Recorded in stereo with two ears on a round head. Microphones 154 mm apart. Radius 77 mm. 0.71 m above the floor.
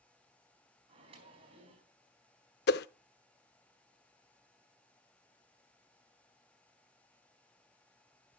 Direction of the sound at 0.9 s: 35° right (ahead or behind).